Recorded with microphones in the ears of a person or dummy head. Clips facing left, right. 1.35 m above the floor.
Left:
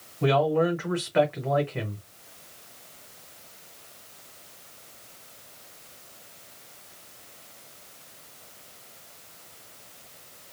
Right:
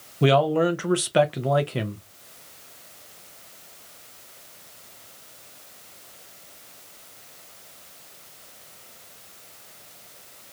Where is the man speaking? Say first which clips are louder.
Right 3 dB; 45° right (ahead or behind), 0.7 m.